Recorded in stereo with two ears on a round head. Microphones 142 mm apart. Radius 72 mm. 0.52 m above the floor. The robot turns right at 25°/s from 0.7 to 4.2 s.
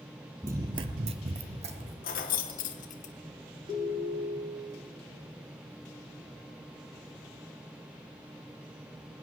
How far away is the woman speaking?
No woman speaking in this recording.